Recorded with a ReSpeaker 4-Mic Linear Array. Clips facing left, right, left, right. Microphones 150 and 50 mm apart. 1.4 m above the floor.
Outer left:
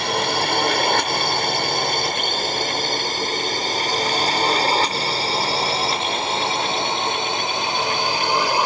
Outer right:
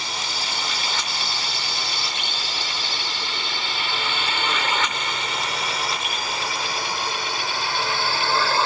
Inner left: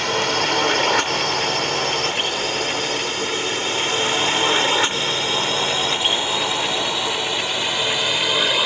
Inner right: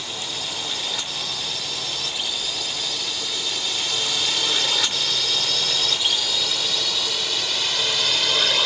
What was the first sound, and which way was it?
A drone, 60° left (ahead or behind).